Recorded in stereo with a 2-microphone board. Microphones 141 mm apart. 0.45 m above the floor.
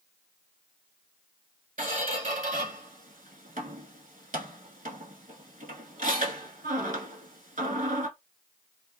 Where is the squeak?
70° right (ahead or behind), 1.0 m.